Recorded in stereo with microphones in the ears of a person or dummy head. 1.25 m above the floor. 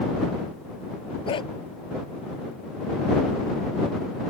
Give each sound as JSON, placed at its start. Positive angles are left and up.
{"t": 1.3, "sound": "a dog barking", "side_deg": 30}